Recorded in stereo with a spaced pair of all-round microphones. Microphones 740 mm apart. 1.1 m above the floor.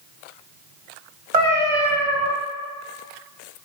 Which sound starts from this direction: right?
A cat meowing, at 1.3 s.